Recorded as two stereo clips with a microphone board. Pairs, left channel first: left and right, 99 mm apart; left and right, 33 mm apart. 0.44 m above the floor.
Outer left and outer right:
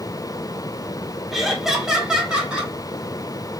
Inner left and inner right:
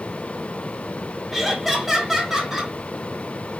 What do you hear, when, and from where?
1.3 s laughter: centre (ahead or behind), 0.8 m; by 2.7 s 10° right (ahead or behind), 1.5 m